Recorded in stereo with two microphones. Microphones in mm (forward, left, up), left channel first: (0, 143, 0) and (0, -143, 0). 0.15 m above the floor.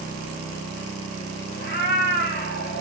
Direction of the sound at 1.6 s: 35° left (ahead or behind).